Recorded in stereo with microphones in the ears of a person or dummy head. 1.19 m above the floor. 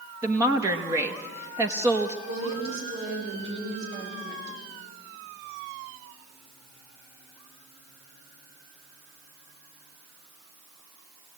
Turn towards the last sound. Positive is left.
turn(degrees=-60)  # may be behind; listen again after turning